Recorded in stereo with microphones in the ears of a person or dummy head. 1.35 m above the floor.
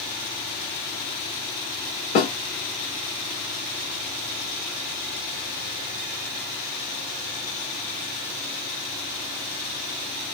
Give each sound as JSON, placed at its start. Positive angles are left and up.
{"t": 2.1, "sound": "a snare drum", "side_deg": 35, "distance_m": 2.5}